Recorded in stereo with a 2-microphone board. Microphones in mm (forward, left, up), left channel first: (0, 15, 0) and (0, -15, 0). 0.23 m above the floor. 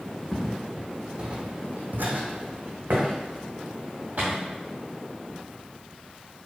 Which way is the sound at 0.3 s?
5° left (ahead or behind).